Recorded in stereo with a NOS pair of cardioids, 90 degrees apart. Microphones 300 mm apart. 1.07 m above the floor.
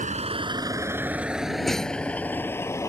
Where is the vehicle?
25° right; by 2.9 s 10° left.